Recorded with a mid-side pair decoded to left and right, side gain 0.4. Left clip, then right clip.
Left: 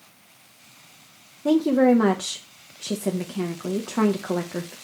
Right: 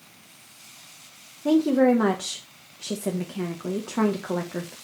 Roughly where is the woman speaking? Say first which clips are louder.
Left 1 dB; ahead.